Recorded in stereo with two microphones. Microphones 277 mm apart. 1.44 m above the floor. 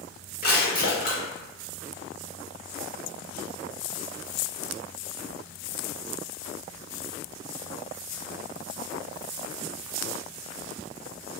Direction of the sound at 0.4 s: 35° left (ahead or behind).